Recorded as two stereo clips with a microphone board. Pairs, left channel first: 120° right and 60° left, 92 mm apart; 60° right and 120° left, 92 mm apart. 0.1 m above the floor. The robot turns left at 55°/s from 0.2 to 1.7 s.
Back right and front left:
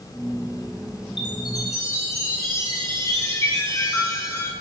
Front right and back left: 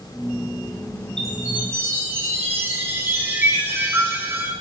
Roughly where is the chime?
Behind right.